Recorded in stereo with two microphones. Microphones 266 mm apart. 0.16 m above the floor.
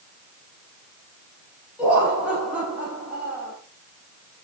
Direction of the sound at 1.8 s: 5° right (ahead or behind).